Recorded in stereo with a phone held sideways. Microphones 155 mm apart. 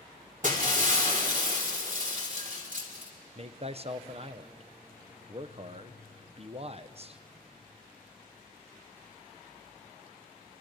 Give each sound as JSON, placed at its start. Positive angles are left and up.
{"t": 0.4, "sound": "breaking glass", "side_deg": -55, "distance_m": 2.5}
{"t": 3.4, "sound": "a man speaking", "side_deg": -40, "distance_m": 0.7}